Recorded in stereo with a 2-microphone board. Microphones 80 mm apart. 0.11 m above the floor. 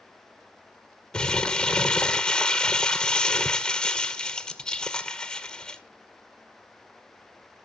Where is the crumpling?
10° left (ahead or behind), 0.7 m.